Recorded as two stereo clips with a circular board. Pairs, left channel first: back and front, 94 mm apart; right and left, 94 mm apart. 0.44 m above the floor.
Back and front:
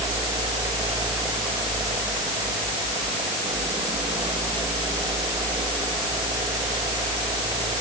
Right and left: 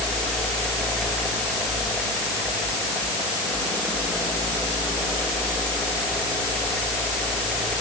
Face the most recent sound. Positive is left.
No sound to turn to.